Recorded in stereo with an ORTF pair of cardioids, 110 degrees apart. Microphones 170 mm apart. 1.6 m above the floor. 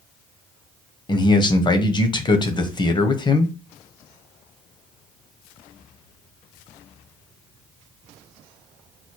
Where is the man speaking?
25° left, 0.9 m.